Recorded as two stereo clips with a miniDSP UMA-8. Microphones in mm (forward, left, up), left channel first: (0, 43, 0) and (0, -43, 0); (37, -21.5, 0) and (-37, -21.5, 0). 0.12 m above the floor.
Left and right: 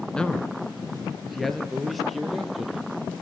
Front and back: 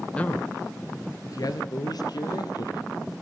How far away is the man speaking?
About 1.0 m.